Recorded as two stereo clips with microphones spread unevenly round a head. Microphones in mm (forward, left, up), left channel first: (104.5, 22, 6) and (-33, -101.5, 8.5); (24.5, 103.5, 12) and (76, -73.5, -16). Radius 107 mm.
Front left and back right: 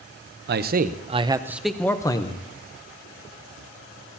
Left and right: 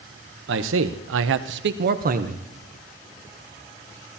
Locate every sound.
0.5 s a man speaking: 115° right, 0.9 m; by 2.5 s 20° right, 1.0 m